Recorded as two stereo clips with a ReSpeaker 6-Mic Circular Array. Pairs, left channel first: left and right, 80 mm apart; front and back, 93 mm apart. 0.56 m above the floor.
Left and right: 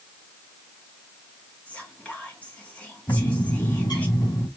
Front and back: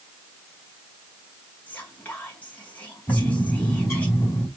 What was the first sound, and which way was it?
Whispering, 45° left.